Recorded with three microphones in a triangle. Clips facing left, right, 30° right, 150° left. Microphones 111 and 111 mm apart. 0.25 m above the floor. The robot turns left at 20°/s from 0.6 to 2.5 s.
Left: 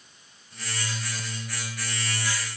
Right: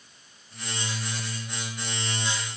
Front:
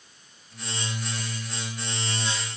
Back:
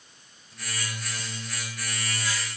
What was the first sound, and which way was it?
Only background noise.